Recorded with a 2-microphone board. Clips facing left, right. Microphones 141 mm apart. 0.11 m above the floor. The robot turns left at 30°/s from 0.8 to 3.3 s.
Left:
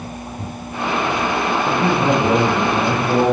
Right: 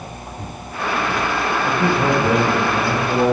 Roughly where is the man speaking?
Behind right.